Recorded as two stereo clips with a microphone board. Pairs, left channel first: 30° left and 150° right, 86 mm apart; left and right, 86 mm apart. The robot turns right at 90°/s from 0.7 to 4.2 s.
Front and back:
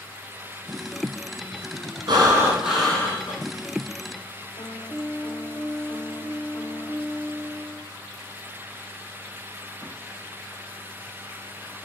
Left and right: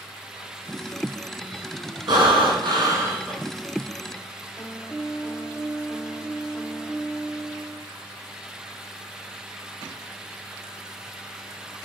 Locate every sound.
2.1 s breathing: 115° right, 1.5 m; by 3.3 s straight ahead, 1.5 m
4.6 s a piano: 5° left, 0.5 m